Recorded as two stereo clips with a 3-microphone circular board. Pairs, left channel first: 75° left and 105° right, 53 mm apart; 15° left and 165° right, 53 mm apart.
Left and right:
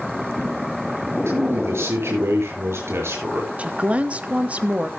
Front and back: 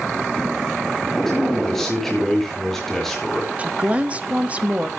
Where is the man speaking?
70° right, 6 m.